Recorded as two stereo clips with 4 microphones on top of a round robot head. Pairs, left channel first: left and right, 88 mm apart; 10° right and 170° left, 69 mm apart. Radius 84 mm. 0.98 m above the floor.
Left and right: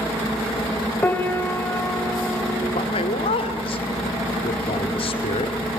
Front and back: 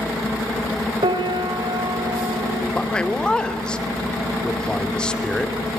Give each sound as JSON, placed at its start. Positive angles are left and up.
{"t": 1.0, "sound": "a piano", "azimuth_deg": 160, "distance_m": 2.0}
{"t": 2.7, "sound": "a man speaking", "azimuth_deg": 65, "distance_m": 2.5}